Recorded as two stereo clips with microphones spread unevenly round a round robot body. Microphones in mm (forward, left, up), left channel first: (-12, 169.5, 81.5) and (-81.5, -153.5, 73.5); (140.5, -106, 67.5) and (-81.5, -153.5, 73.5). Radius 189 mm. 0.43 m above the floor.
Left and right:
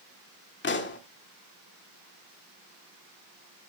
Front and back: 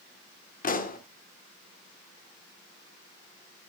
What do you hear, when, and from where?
0.6 s a pop: 40° left, 1.8 m